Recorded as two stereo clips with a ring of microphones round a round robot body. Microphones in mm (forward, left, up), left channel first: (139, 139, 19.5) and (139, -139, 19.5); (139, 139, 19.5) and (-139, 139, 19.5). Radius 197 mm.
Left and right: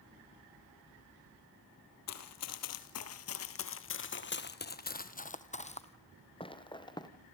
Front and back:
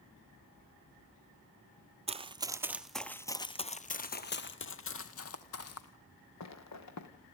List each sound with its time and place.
2.1 s running footsteps: 115° left, 1.3 m; by 7.1 s 15° left, 2.5 m